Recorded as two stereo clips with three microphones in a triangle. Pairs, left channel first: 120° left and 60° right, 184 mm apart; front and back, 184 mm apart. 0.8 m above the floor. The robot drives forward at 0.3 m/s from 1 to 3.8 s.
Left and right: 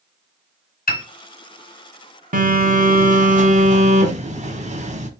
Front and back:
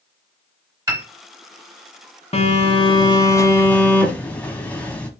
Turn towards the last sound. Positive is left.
turn(degrees=-80)